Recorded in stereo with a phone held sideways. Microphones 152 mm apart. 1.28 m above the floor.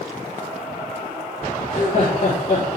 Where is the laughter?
40° left (ahead or behind), 1.6 m.